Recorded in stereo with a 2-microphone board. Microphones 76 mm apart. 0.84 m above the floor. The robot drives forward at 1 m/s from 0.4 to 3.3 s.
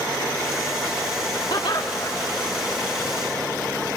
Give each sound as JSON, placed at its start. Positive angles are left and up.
{"t": 1.5, "sound": "laughter", "side_deg": 70, "distance_m": 1.3}